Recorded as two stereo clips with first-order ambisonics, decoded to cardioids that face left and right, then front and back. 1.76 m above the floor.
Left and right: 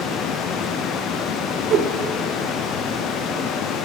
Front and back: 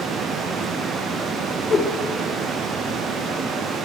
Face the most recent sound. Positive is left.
turn(degrees=-60)